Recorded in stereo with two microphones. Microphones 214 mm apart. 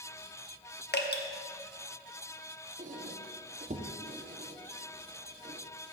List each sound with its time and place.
0.9 s dripping: 50° left (ahead or behind), 0.8 m
2.8 s a squeak: 35° right (ahead or behind), 0.8 m